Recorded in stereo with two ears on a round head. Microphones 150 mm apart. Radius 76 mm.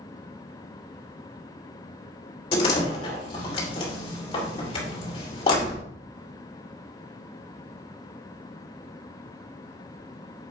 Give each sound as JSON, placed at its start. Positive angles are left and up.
{"t": 2.5, "sound": "a door slam", "side_deg": 35, "distance_m": 2.5}